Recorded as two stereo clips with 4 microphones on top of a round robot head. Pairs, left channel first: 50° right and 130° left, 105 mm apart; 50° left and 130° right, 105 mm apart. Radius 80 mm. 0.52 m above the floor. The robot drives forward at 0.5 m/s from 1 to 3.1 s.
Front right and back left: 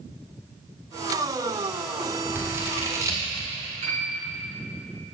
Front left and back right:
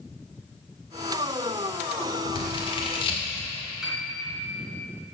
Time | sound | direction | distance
2.4 | scissors | 65° left | 2 m
3.8 | a piano | 145° left | 2.5 m